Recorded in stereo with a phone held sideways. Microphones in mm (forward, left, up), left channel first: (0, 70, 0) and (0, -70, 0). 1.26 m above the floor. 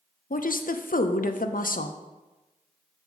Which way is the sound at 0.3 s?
85° left.